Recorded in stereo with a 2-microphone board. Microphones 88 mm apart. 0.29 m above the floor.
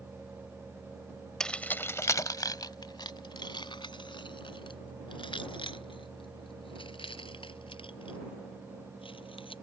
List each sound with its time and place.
1.4 s keys jangling: 5° left (ahead or behind); by 9.5 s 85° left